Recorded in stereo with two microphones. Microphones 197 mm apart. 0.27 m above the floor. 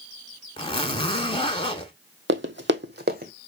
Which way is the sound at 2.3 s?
75° right (ahead or behind).